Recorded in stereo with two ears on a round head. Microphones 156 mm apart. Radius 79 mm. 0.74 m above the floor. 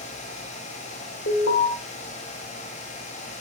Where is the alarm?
80° left, 1.9 m.